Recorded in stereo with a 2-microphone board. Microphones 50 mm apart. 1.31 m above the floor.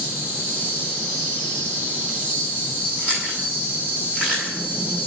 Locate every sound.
0.0 s an insect: 25° right (ahead or behind), 8.5 m
3.0 s chewing: 25° right (ahead or behind), 7 m